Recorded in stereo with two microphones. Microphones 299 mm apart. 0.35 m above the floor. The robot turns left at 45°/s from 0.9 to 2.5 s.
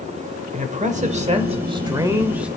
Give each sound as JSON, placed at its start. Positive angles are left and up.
{"t": 0.5, "sound": "a man speaking", "side_deg": -25, "distance_m": 1.3}